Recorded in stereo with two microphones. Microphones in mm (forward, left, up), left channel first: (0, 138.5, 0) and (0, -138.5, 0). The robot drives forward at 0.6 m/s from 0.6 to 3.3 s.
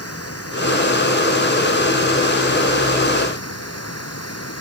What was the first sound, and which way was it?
Running water, 55° left (ahead or behind).